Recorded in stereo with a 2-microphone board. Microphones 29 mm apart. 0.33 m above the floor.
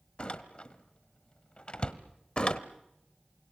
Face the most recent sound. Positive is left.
turn(degrees=35)  # may be behind; listen again after turning